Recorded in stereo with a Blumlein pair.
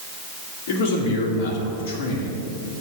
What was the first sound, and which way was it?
A man speaking, 50° left.